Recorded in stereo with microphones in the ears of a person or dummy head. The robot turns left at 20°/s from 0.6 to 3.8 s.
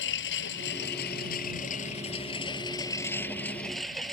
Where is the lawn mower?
65° left; by 4.1 s 5° left.